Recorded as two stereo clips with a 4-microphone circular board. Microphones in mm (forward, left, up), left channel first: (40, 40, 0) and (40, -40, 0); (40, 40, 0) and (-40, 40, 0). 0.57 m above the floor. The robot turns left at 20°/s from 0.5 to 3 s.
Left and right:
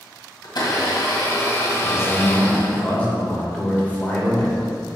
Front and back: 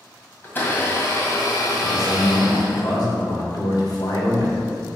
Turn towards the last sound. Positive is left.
turn(degrees=20)